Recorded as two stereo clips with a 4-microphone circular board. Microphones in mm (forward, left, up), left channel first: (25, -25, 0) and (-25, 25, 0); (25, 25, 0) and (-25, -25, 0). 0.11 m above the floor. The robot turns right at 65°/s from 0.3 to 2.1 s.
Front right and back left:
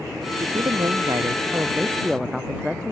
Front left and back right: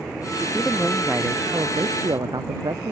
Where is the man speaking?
110° left; by 2.9 s 140° right.